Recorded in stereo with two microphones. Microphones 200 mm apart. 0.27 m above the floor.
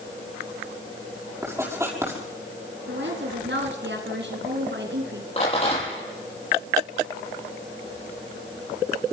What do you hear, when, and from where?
1.4 s writing: 15° right (ahead or behind), 6 m
2.9 s a woman speaking: 65° right (ahead or behind), 3 m
5.4 s a rattle: 35° left (ahead or behind), 7.5 m